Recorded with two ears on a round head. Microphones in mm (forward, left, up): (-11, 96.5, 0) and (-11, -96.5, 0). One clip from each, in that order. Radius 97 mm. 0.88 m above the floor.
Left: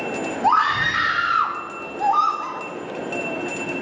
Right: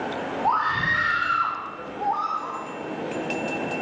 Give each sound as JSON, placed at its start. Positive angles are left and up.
{"t": 0.4, "sound": "a scream", "side_deg": 60, "distance_m": 2.5}